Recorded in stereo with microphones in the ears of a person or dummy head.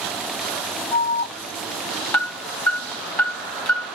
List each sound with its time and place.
0.9 s an alarm: 20° left (ahead or behind), 1.3 m